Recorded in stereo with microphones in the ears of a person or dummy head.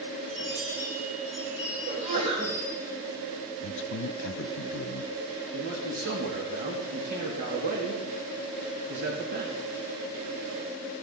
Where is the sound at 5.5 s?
60° right (ahead or behind), 2.5 m.